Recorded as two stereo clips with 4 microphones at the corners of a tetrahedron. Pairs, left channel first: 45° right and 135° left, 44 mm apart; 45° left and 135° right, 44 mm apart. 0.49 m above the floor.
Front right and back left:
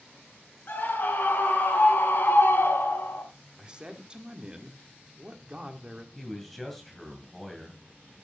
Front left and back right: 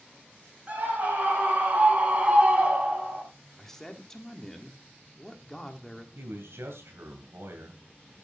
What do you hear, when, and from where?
0.7 s a scream: 80° right, 4.5 m; by 3.2 s 65° right, 3 m
3.6 s a man speaking: 110° left, 1.4 m
6.2 s a man speaking: 130° right, 2.5 m